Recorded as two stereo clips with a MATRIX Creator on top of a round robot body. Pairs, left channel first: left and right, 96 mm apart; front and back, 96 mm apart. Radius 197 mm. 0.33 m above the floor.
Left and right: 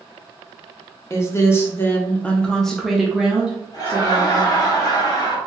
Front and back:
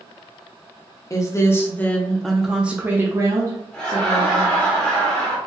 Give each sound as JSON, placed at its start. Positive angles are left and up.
{"t": 1.1, "sound": "a woman speaking", "azimuth_deg": 40, "distance_m": 1.1}
{"t": 3.7, "sound": "laughter", "azimuth_deg": 75, "distance_m": 1.9}